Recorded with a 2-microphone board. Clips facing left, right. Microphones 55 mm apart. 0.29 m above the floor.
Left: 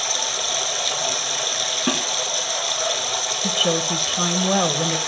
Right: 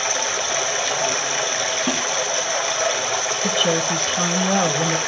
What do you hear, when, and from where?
0.0 s running water: 40° right (ahead or behind), 1.6 m
1.9 s a snare drum: 35° left (ahead or behind), 1.4 m
3.4 s a woman speaking: centre (ahead or behind), 0.9 m